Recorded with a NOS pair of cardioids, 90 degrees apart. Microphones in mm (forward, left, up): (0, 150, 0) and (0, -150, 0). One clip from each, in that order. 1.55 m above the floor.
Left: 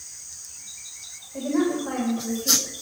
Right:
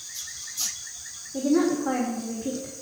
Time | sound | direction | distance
1.3 | a woman speaking | 30° right | 3.5 m